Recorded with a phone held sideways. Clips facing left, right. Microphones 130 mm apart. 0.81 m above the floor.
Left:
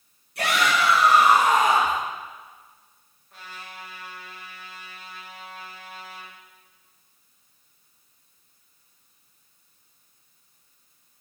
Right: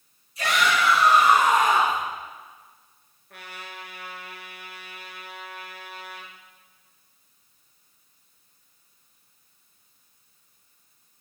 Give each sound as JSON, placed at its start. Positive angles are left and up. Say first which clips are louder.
{"t": 0.3, "sound": "a shout", "louder": "even", "side_deg": 65, "distance_m": 6.5}
{"t": 3.3, "sound": "a trumpet", "louder": "right 1 dB", "side_deg": -70, "distance_m": 2.0}